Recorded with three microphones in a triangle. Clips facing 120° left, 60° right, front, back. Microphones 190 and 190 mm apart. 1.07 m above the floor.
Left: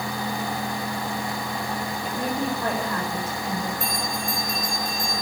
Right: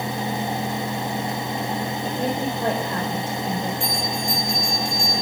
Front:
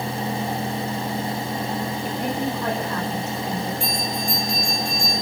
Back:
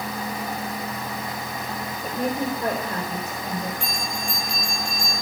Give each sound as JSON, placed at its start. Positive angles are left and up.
{"t": 2.0, "sound": "a woman speaking", "azimuth_deg": -120, "distance_m": 4.5}
{"t": 3.8, "sound": "a bell", "azimuth_deg": -55, "distance_m": 6.5}